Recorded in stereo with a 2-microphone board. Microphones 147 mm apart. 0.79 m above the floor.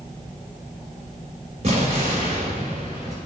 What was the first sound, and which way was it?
An explosion, 45° right (ahead or behind).